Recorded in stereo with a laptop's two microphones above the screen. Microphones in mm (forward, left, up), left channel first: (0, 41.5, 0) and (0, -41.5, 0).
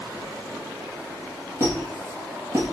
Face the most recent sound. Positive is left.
turn(degrees=-30)  # may be behind; listen again after turning